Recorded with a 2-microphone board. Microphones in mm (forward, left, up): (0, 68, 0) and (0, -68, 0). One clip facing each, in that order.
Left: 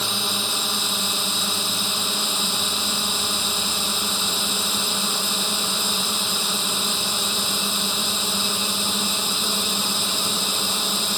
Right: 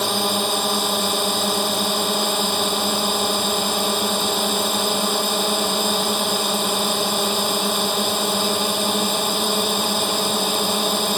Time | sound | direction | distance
0.0 | a drone | 65° right (ahead or behind) | ?